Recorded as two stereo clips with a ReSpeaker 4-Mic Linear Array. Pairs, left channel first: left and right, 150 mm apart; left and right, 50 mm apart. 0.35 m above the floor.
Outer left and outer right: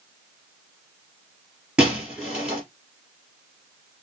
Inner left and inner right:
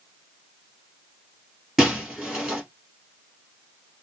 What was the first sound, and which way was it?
Breaking glass, 5° right (ahead or behind).